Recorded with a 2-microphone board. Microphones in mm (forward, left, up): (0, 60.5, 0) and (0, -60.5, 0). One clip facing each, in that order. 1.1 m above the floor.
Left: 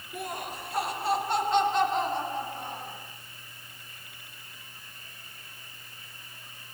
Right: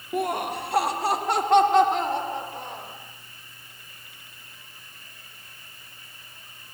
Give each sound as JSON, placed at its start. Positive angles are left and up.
{"t": 0.1, "sound": "laughter", "side_deg": -55, "distance_m": 1.0}